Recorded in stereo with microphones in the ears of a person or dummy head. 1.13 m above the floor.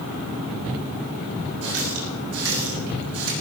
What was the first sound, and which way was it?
A running tap, 85° right.